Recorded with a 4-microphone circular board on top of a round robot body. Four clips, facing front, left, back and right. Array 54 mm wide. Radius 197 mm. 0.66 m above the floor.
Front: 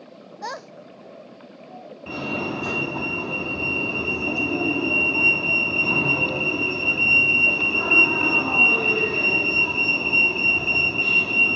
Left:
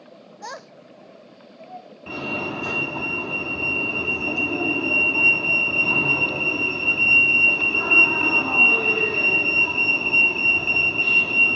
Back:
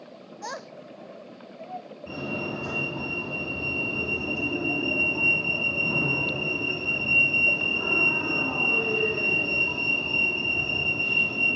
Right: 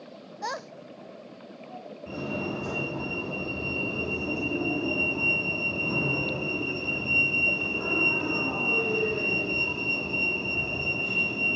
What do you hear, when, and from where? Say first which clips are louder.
0.4 s a child speaking: right 3 dB, front 4 dB; 35° right, 0.6 m; by 1.9 s 140° left, 2 m
2.1 s a fire alarm: left 4 dB, front 5 dB; 55° left, 3.5 m